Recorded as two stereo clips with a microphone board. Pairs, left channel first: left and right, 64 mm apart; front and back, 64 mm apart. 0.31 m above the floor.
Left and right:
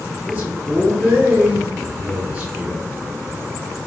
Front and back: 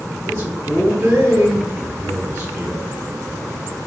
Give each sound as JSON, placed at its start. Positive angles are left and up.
{"t": 0.3, "sound": "a man speaking", "azimuth_deg": -145, "distance_m": 2.0}